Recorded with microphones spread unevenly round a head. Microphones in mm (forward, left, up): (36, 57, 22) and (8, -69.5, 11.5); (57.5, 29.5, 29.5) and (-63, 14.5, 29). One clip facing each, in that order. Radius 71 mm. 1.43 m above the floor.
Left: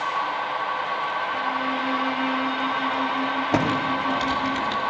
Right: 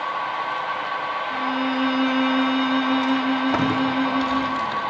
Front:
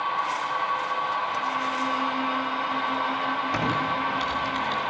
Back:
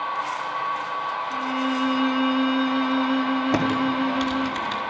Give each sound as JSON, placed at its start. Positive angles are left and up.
{"t": 1.3, "sound": "a violin", "azimuth_deg": -140, "distance_m": 3.0}
{"t": 3.5, "sound": "typing on a keyboard", "azimuth_deg": 150, "distance_m": 4.0}